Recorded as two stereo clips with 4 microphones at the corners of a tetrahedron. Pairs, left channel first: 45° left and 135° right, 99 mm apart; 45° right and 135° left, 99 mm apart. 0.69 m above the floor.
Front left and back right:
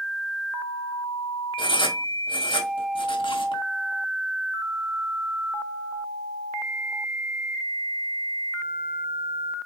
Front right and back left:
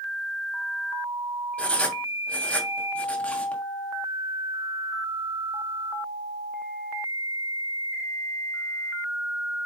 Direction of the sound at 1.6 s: 30° left.